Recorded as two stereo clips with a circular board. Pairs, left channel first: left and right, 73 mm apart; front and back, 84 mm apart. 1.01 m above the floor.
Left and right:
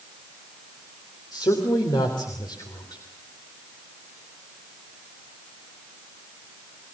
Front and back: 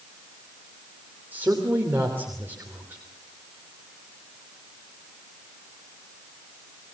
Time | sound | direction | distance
1.3 | a man speaking | 115° left | 3 m